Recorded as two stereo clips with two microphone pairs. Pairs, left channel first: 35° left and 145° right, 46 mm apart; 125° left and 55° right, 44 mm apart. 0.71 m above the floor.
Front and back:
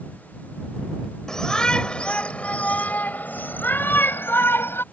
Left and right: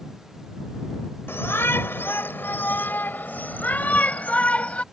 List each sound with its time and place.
1.3 s a shout: 110° left; by 4.8 s 65° left